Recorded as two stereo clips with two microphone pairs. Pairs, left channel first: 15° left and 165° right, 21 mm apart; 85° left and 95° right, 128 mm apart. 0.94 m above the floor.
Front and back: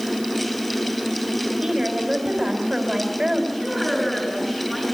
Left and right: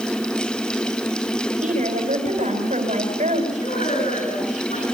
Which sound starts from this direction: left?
A woman speaking, at 3.5 s.